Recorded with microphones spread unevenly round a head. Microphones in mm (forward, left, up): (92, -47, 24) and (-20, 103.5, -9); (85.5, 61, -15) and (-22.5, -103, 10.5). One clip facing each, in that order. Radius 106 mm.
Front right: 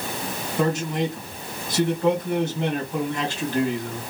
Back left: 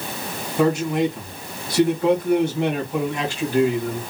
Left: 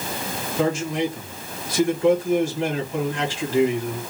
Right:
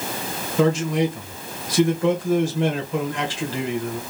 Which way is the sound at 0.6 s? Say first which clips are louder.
Back left 5 dB, right 3 dB; 150° right.